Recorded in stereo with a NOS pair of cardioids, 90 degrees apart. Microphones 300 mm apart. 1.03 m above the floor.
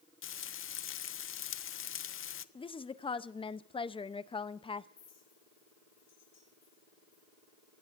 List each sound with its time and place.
0.2 s frying: 45° left, 0.7 m
2.5 s a woman speaking: 20° left, 0.7 m
5.0 s a clink: 55° left, 5.5 m